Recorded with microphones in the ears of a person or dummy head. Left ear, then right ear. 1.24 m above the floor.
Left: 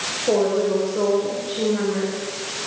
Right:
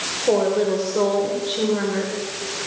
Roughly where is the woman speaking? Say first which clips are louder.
Right 1 dB; right.